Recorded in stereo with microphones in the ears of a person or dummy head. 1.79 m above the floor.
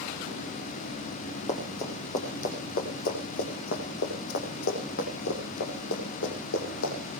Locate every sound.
1.5 s running footsteps: 35° left (ahead or behind), 4.5 m; by 6.9 s 70° left (ahead or behind), 6 m